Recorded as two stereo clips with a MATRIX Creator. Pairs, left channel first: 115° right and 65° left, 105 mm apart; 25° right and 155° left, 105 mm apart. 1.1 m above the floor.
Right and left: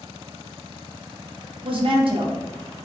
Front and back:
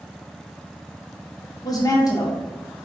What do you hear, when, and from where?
1.6 s a woman speaking: 35° left, 0.6 m